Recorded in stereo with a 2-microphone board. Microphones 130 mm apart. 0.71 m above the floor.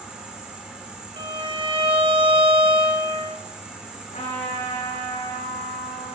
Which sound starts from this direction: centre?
An insect, at 0.0 s.